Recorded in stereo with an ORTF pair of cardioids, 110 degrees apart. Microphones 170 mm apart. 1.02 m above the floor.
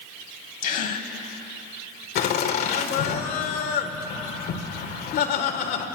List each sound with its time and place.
0.6 s a gasp: 55° left, 2.5 m
2.1 s laughter: 70° left, 3.5 m